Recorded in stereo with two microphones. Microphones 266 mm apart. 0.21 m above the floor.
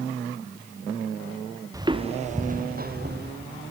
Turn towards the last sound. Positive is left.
turn(degrees=-40)  # may be behind; listen again after turning